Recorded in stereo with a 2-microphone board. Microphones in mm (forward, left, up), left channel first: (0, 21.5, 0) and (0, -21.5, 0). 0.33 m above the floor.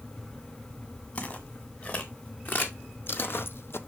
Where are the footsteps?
40° left (ahead or behind), 3 m; by 3.8 s 70° left (ahead or behind), 0.7 m.